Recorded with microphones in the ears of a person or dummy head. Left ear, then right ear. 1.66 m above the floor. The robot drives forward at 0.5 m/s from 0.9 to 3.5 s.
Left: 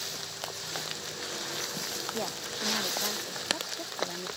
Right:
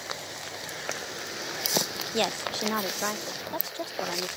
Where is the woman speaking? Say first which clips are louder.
Right 6 dB; 75° right (ahead or behind); by 4.3 s 35° right (ahead or behind).